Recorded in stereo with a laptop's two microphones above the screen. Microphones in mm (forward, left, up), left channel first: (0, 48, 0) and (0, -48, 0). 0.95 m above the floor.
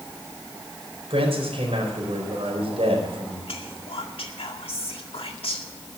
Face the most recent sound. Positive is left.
turn(degrees=75)  # may be behind; listen again after turning